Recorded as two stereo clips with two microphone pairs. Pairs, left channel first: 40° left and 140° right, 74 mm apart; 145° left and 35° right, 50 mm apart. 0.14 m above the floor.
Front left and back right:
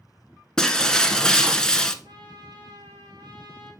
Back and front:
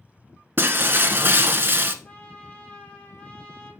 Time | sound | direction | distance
0.6 | breaking glass | 40° right | 0.6 m
2.0 | a trumpet | 155° right | 2.5 m